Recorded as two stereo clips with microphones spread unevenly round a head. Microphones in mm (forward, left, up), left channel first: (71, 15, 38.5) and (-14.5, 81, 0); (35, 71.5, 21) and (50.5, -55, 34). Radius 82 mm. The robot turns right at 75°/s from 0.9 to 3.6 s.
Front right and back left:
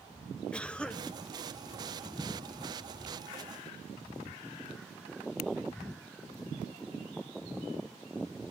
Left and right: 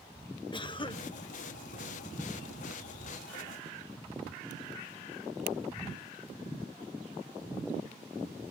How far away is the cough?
About 1.1 m.